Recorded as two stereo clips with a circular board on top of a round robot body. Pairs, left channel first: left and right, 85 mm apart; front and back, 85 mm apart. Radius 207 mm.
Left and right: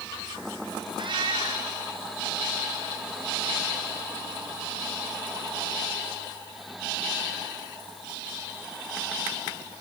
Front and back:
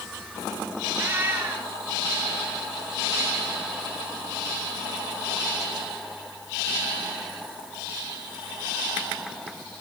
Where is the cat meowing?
115° right, 5.5 m.